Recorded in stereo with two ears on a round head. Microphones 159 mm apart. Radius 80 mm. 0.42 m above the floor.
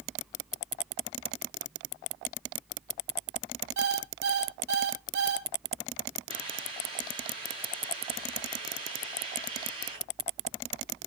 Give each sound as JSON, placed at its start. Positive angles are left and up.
{"t": 3.8, "sound": "an alarm clock", "side_deg": -65, "distance_m": 1.7}
{"t": 6.3, "sound": "a hiss", "side_deg": -30, "distance_m": 6.5}